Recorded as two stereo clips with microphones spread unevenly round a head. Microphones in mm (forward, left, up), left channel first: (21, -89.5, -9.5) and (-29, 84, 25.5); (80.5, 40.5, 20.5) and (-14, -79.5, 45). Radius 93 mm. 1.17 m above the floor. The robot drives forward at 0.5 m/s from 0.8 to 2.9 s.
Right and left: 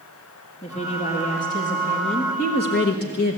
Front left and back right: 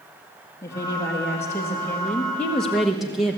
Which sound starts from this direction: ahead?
A woman speaking, at 0.6 s.